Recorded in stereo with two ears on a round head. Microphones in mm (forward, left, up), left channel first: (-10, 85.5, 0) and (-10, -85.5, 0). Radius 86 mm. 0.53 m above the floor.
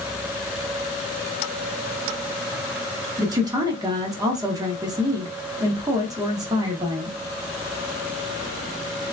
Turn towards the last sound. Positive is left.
turn(degrees=-20)  # may be behind; listen again after turning